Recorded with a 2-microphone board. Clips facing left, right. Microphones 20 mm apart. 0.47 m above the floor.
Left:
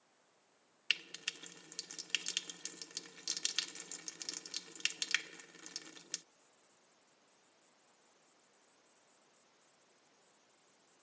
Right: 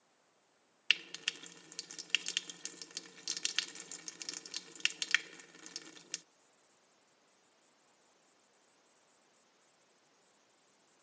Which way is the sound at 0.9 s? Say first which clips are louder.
Right 4 dB; 15° right (ahead or behind).